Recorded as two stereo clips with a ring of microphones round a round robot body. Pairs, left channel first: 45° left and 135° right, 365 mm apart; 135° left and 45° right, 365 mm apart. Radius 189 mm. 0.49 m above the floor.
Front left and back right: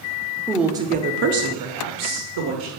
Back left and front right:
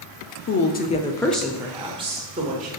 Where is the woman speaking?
125° left, 0.7 m; by 2.7 s 110° right, 1.4 m.